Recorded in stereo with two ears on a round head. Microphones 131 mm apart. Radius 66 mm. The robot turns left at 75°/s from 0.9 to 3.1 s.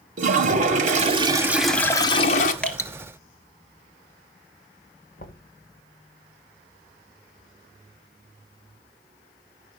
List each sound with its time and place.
0.2 s a toilet flushing: 120° right, 1.6 m; by 2.5 s 115° left, 1.6 m
2.6 s dripping: 5° left (ahead or behind), 1.6 m; by 2.9 s 25° left (ahead or behind), 1.6 m
5.2 s knocking: 65° left (ahead or behind), 1.6 m